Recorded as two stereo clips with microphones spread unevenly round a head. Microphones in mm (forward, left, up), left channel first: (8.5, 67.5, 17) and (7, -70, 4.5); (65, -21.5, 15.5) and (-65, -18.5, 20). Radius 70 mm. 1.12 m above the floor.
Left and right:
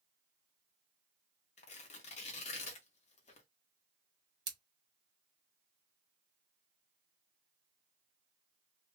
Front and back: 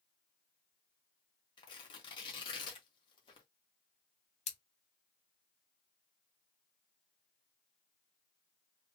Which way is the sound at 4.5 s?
30° right.